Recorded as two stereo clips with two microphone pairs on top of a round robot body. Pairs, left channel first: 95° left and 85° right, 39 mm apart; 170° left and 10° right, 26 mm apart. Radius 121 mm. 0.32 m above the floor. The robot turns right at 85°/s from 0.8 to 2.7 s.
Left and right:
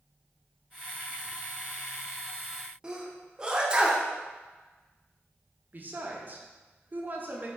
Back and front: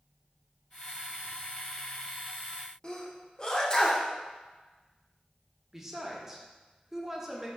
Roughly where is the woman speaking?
Right.